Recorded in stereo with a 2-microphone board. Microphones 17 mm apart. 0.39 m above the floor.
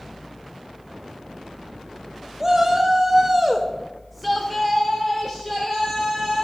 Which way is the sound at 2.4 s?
25° right (ahead or behind).